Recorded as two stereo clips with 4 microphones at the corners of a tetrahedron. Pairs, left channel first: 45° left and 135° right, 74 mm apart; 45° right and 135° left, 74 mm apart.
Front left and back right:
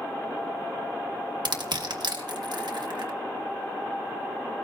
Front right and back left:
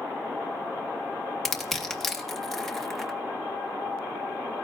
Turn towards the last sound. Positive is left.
turn(degrees=-135)